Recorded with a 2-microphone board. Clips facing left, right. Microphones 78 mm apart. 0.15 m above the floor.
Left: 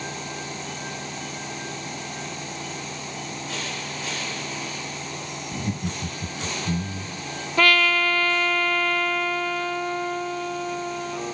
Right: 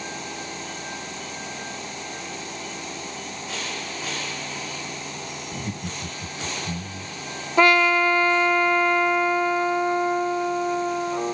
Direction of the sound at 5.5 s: 5° left (ahead or behind).